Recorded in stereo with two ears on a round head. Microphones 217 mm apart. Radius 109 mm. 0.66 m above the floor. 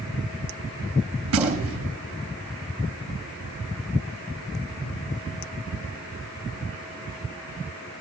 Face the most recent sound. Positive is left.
turn(degrees=-70)  # may be behind; listen again after turning